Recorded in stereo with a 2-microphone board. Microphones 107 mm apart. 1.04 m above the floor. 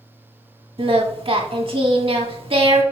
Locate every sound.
0.8 s singing: 60° right (ahead or behind), 1.4 m